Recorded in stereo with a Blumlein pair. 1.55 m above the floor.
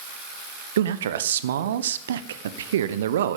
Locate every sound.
0.8 s a man speaking: 60° right, 1.0 m